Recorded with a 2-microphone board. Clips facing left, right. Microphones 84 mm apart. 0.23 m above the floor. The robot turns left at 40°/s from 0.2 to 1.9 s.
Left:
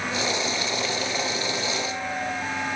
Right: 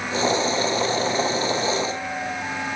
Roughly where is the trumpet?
I don't hear a trumpet.